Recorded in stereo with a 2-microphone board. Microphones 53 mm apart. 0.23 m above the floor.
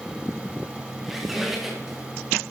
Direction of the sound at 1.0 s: 5° right (ahead or behind).